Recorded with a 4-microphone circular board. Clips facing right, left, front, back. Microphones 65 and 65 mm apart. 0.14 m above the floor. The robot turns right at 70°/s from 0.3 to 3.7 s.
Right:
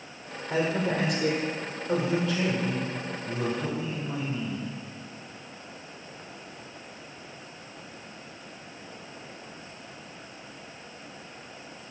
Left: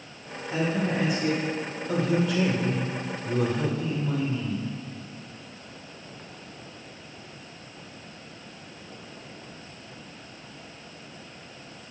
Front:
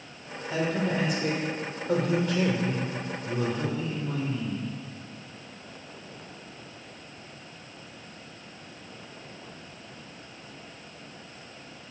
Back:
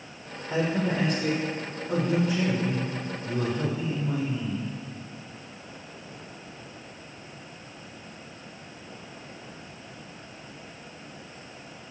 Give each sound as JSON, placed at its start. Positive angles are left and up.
{"t": 0.5, "sound": "a man speaking", "azimuth_deg": -120, "distance_m": 4.0}